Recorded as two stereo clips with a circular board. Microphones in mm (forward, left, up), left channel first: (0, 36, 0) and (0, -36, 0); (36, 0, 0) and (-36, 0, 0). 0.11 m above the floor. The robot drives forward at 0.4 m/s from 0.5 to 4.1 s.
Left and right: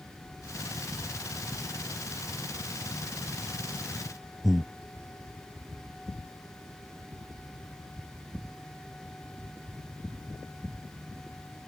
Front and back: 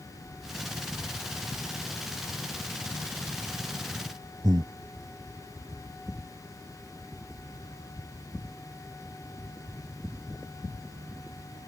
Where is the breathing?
175° right.